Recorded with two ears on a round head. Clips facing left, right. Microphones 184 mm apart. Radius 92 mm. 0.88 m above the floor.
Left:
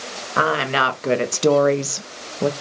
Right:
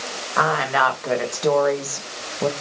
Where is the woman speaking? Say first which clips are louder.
Left 1 dB; 35° left (ahead or behind), 1.0 m; by 2.5 s 10° left (ahead or behind), 0.5 m.